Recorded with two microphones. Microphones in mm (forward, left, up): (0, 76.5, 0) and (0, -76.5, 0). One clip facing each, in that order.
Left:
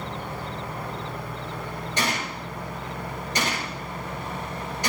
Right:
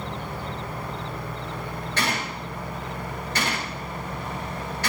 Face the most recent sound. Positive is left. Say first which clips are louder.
# even
turn(degrees=15)  # may be behind; listen again after turning